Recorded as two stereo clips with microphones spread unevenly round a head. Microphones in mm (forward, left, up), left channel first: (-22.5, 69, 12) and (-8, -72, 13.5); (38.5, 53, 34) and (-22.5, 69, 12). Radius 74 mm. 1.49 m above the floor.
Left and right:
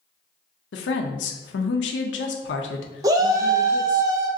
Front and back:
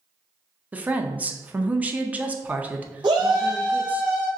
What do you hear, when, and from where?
0.7 s a woman speaking: 95° left, 0.5 m
3.0 s a shout: 145° right, 0.5 m